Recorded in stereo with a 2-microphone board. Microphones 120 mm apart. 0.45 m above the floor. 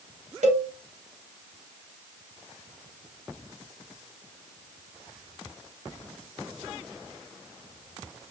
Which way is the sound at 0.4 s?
80° right.